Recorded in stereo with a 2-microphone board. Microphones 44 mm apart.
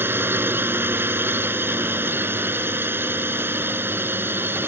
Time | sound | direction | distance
0.0 | a drone | 55° right (ahead or behind) | ?